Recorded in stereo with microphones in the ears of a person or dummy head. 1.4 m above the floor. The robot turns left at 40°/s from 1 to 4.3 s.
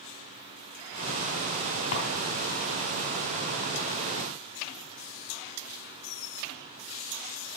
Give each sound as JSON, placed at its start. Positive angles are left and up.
{"t": 1.9, "sound": "a drawer", "side_deg": 55, "distance_m": 1.9}